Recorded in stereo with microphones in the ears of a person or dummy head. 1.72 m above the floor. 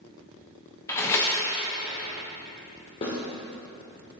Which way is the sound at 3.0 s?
30° left (ahead or behind).